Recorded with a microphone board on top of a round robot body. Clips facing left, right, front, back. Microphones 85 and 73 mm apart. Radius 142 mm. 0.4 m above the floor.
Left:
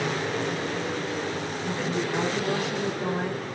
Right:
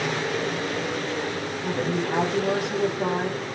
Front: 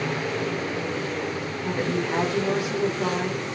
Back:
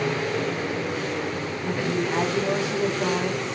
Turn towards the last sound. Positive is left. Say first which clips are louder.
# right 3 dB, even
turn(degrees=-70)